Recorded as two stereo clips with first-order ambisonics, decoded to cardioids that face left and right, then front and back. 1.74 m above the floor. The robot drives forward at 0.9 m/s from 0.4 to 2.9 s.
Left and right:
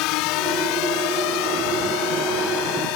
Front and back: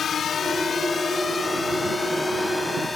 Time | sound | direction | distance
0.0 | a drone | 65° left | ?